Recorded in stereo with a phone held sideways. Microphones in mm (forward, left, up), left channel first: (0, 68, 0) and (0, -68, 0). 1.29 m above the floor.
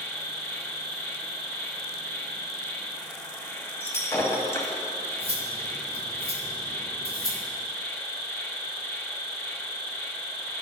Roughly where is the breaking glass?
Centre.